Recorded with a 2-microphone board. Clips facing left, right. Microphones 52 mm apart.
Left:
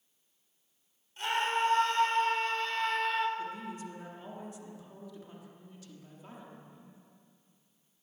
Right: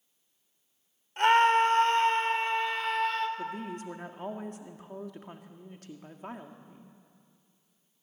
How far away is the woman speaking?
About 1.5 m.